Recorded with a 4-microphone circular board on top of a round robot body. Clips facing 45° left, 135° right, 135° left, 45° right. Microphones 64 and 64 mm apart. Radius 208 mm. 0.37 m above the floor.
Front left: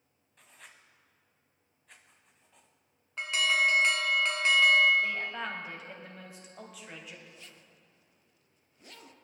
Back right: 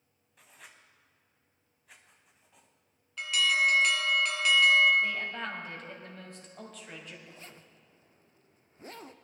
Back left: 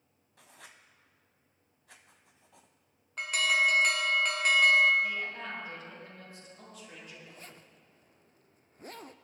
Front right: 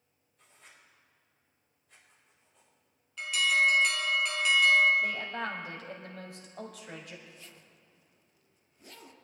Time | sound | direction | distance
0.4 | writing | 140° left | 0.7 m
3.2 | an alarm | 95° left | 1.8 m
5.0 | a woman speaking | 40° right | 3 m
7.3 | a zipper | 175° left | 0.7 m